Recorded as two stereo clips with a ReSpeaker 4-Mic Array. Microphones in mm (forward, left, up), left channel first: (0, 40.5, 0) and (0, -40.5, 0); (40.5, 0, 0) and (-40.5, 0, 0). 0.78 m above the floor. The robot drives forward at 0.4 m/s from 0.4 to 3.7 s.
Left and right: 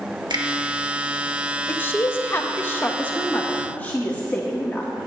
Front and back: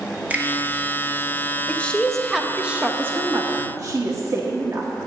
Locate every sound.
0.3 s a finger snap: 110° right, 1.2 m
1.7 s a woman speaking: 50° left, 0.7 m; by 4.9 s 155° left, 0.9 m